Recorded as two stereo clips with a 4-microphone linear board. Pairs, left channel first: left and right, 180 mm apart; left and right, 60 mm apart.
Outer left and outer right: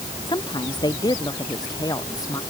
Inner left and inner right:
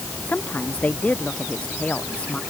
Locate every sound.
0.3 s a woman speaking: 25° left (ahead or behind); by 2.4 s 20° left (ahead or behind)